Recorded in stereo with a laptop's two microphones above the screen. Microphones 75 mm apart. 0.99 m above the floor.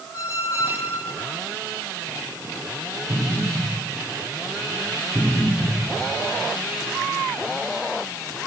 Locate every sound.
0.1 s a squeak: 40° left (ahead or behind), 2.5 m
3.1 s an explosion: 85° left, 5.5 m